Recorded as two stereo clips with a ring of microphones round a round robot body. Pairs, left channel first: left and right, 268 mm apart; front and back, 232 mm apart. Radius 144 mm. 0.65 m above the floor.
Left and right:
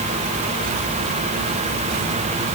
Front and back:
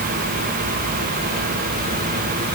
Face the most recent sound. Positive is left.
No sound to turn to.